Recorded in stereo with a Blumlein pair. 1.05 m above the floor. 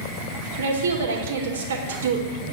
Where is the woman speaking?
65° right, 2 m.